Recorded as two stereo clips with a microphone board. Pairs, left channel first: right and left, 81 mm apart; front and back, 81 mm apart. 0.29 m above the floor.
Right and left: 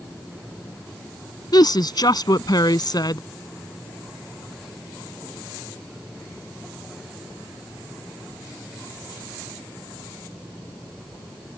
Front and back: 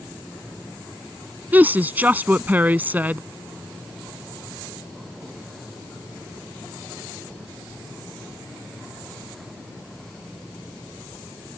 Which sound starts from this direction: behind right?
A woman speaking, at 1.5 s.